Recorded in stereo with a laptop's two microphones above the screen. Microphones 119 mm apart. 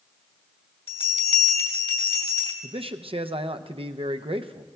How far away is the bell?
About 2.5 m.